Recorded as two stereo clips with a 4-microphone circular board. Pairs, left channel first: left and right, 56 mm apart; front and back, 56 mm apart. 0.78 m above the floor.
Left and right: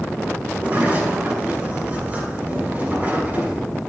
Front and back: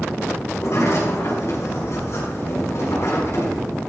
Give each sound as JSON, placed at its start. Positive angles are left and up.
{"t": 0.5, "sound": "a sliding door", "azimuth_deg": -30, "distance_m": 6.5}